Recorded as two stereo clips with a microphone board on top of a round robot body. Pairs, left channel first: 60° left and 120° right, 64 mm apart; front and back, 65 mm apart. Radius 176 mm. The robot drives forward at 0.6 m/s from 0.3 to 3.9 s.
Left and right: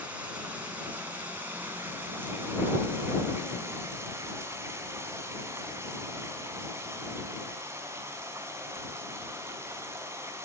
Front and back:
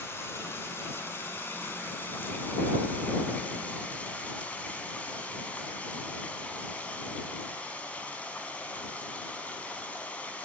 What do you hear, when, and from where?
0.0 s running water: 50° right, 7 m; by 10.4 s 70° right, 6 m